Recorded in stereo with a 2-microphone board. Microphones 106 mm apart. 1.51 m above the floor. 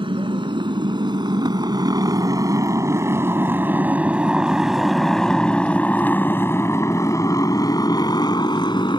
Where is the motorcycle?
50° right (ahead or behind); by 9.0 s 50° left (ahead or behind).